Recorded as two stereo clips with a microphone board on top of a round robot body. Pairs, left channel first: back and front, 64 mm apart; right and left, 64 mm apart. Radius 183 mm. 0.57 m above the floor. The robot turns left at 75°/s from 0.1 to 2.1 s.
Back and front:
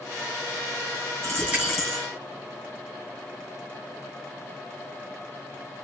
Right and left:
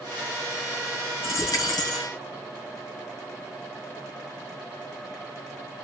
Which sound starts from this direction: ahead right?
A dropped coin, at 1.2 s.